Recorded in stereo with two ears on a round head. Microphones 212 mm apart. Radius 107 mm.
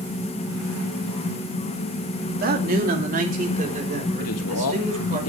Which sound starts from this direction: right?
A man speaking, at 2.4 s.